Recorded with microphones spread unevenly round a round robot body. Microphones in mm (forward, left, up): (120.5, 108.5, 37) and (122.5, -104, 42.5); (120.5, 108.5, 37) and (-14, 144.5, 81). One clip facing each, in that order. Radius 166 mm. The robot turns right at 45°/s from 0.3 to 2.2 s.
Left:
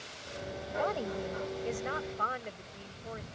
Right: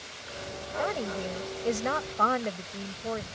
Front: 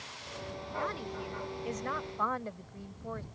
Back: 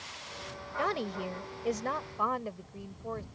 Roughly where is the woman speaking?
Behind.